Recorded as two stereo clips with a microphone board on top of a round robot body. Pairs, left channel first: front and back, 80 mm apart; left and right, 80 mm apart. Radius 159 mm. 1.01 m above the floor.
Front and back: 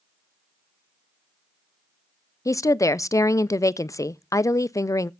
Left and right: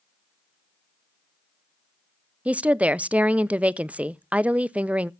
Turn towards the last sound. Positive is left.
turn(degrees=-25)